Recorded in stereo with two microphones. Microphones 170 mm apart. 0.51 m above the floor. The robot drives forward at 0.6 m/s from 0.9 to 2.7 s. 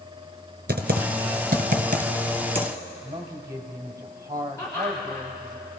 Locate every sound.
0.7 s typing on a keyboard: 70° right (ahead or behind), 1.1 m; by 2.7 s 40° right (ahead or behind), 1.7 m
3.0 s a woman speaking: 20° right (ahead or behind), 2 m
4.6 s laughter: 15° left (ahead or behind), 3.5 m